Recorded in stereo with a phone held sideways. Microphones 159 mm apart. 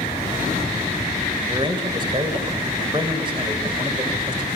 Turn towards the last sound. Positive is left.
turn(degrees=-30)  # may be behind; listen again after turning